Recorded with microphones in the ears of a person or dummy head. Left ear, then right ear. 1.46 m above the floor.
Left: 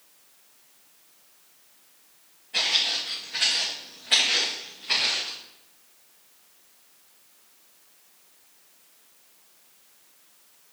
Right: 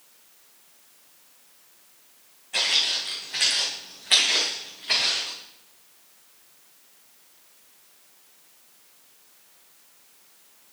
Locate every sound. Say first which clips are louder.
2.5 s footsteps: right 1 dB; 35° right (ahead or behind), 4 m; by 5.4 s 25° right (ahead or behind), 5.5 m